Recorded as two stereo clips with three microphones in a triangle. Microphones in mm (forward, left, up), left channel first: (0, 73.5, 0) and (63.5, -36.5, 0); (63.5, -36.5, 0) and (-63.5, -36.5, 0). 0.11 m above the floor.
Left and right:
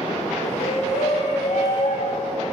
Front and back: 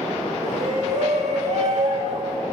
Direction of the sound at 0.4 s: 150° left.